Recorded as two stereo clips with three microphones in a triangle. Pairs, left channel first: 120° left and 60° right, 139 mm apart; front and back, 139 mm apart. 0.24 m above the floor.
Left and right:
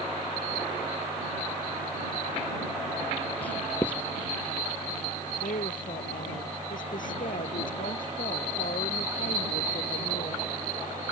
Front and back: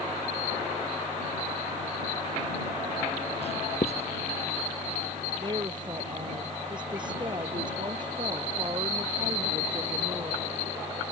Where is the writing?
40° left.